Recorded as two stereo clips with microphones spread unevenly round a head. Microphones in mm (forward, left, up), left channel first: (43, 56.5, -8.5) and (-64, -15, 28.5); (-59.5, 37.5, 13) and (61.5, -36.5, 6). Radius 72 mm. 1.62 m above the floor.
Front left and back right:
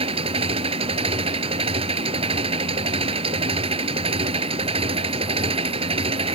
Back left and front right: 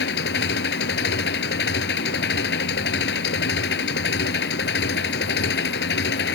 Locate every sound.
0.0 s an engine running: 165° left